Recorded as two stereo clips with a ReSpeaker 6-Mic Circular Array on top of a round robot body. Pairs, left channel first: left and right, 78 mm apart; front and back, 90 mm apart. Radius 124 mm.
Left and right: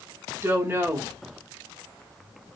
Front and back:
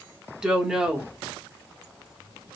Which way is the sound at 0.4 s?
110° right.